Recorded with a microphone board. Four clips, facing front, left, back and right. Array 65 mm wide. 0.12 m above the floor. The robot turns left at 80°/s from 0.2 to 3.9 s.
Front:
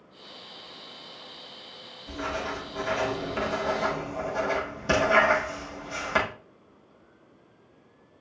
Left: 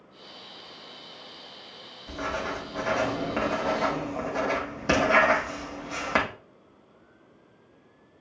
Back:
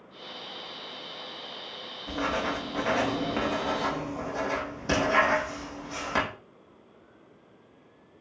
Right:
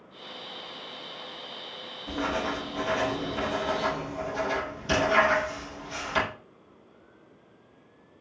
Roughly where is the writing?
Behind right.